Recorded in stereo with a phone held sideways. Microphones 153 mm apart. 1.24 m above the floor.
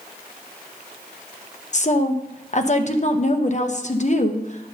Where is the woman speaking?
45° left (ahead or behind), 0.7 m.